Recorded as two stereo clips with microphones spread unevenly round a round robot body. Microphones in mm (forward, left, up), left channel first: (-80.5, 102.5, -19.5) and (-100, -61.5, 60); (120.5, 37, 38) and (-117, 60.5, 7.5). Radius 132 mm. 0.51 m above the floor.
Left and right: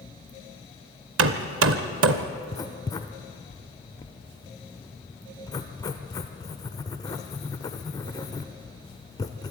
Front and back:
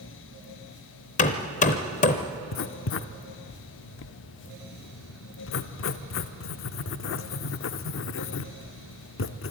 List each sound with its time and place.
1.2 s hammering: 70° right, 0.7 m
2.5 s writing: 30° left, 0.7 m